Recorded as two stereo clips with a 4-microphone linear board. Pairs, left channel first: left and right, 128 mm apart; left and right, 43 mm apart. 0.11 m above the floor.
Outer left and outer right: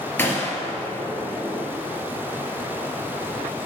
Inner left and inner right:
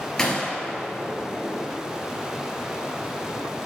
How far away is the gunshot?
About 2.5 m.